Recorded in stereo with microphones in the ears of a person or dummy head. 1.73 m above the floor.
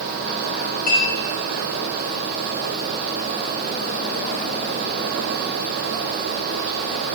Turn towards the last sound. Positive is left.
turn(degrees=50)  # may be behind; listen again after turning